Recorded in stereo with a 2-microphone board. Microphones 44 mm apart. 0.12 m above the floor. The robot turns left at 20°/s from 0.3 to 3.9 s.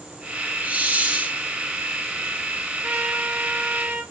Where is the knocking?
I don't hear knocking.